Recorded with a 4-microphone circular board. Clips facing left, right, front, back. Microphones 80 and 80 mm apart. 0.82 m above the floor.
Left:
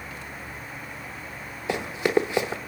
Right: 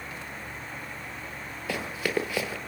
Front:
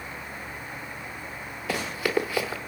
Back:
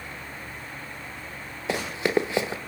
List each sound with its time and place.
1.7 s running footsteps: 140° left, 0.9 m